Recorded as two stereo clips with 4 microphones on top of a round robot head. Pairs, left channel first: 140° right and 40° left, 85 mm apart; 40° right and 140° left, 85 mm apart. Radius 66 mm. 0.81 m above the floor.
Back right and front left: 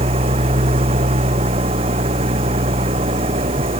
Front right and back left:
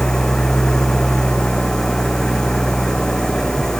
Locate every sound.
0.0 s an engine running: 40° left